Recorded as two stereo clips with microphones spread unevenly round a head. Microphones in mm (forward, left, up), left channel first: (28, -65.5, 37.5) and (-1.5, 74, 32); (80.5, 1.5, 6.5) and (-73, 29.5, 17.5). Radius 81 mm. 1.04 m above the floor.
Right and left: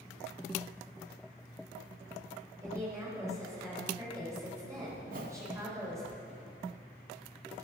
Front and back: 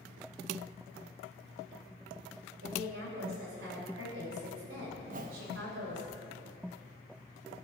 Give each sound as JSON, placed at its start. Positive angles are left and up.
{"t": 2.6, "sound": "a woman speaking", "azimuth_deg": 175, "distance_m": 3.5}
{"t": 5.0, "sound": "a whoosh", "azimuth_deg": 135, "distance_m": 0.9}